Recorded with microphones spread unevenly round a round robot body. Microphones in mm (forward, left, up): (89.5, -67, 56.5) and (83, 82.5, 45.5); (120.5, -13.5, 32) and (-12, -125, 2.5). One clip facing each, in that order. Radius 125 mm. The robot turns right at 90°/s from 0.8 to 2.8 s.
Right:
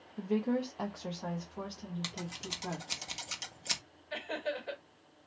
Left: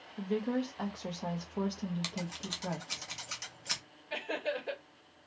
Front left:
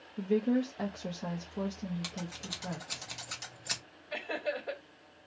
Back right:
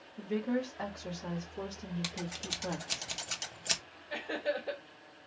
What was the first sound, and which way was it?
A woman speaking, 10° right.